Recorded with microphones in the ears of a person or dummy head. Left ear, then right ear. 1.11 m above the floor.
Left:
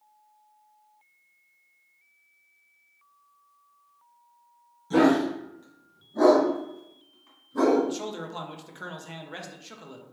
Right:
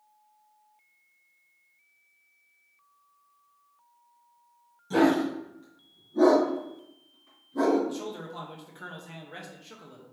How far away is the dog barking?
About 1.4 m.